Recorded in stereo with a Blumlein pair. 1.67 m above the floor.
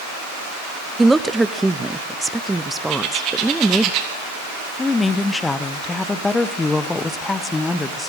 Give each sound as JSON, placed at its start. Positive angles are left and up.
{"t": 1.0, "sound": "a woman speaking", "azimuth_deg": -5, "distance_m": 0.6}
{"t": 2.9, "sound": "a bird", "azimuth_deg": -40, "distance_m": 3.5}
{"t": 4.8, "sound": "a woman speaking", "azimuth_deg": 10, "distance_m": 1.0}